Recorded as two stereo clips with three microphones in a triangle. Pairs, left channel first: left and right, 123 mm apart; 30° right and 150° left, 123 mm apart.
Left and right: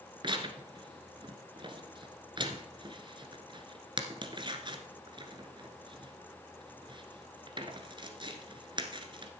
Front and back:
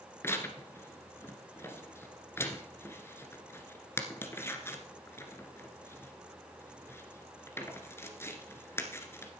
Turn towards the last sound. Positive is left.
turn(degrees=-90)